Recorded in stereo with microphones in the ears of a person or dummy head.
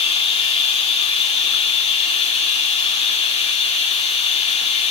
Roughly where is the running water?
Left.